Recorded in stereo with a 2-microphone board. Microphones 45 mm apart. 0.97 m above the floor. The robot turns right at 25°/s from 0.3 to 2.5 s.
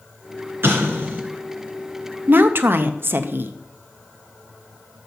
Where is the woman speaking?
50° right (ahead or behind), 0.7 m; by 3.5 s 55° right (ahead or behind), 0.7 m.